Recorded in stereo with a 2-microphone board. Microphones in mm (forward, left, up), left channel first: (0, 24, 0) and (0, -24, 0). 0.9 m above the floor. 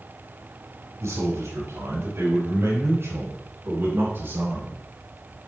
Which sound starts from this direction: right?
A man speaking, at 1.0 s.